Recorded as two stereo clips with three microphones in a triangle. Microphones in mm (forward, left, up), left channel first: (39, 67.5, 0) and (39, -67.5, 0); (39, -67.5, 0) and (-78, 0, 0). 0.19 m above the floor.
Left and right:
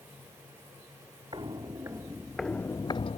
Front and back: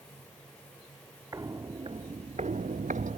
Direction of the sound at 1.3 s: 145° right.